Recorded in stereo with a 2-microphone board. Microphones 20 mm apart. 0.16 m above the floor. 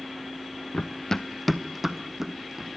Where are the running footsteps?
60° left (ahead or behind), 0.8 m; by 2.8 s 30° right (ahead or behind), 2.5 m.